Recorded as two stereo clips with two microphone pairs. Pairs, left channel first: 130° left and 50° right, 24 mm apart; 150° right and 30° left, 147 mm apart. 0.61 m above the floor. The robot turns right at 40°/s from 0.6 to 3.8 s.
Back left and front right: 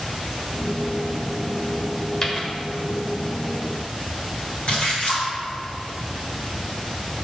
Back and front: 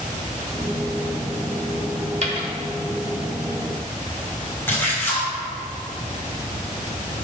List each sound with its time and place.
2.2 s a dropped coin: 65° left, 1.0 m; by 2.5 s 80° left, 1.0 m
4.7 s a splash: 135° left, 2 m